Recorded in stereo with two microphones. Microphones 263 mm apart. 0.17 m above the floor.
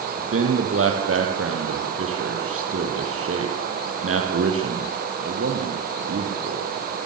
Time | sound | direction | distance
0.2 | a man speaking | 55° right (ahead or behind) | 5 m